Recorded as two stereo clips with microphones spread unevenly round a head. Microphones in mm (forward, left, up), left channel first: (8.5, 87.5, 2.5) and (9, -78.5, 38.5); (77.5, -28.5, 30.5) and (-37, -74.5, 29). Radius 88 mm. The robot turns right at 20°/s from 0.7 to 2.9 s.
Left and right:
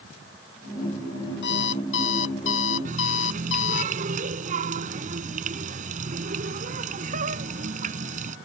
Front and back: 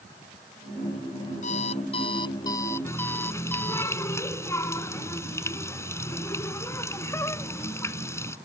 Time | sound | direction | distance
1.4 | an alarm clock | 70° left | ?
2.9 | a running tap | 45° right | ?